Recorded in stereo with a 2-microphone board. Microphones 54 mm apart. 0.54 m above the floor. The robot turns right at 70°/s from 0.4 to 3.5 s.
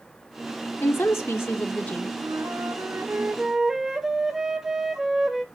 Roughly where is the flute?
Right.